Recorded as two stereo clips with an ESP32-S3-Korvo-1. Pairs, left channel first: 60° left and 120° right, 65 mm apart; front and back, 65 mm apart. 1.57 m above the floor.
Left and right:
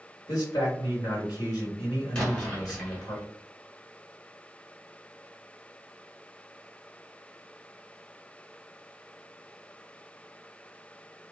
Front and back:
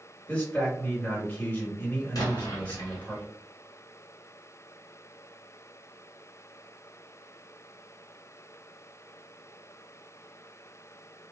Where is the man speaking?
70° left, 1.5 m.